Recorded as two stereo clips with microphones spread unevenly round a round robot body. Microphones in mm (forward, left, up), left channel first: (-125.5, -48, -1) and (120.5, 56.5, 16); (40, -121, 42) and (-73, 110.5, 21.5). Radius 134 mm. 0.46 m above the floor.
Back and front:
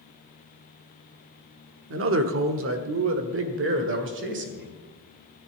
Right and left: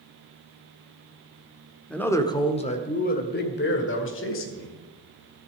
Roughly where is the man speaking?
Ahead left.